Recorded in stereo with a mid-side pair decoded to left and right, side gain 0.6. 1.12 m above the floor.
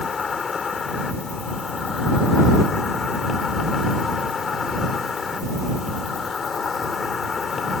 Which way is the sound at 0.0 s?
30° left.